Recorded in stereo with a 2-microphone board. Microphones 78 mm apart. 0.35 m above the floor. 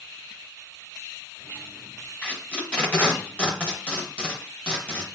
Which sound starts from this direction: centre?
Tape being pulled, at 2.2 s.